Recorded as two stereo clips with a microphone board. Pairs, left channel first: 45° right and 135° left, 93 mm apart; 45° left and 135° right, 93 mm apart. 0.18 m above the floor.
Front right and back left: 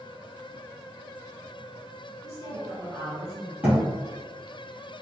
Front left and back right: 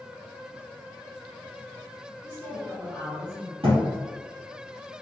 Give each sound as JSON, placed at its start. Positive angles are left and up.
{"t": 2.2, "sound": "a woman speaking", "azimuth_deg": 160, "distance_m": 1.9}
{"t": 3.6, "sound": "a thud", "azimuth_deg": -155, "distance_m": 2.0}